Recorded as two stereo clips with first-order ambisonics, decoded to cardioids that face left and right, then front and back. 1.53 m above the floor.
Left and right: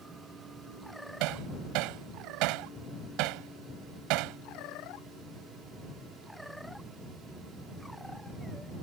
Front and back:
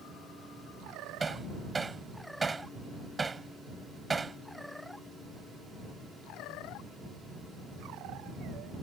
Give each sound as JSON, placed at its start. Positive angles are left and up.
{"t": 1.2, "sound": "hammering", "azimuth_deg": -105}